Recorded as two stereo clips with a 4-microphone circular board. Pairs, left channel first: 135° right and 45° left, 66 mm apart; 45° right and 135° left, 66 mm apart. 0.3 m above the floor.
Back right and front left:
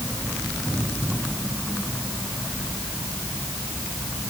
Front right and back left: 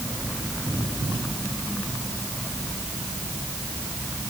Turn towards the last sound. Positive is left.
No sound to turn to.